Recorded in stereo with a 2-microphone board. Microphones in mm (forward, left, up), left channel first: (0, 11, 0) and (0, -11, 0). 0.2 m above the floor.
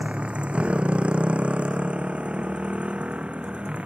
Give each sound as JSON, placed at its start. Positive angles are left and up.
{"t": 0.0, "sound": "a motorcycle", "side_deg": -60}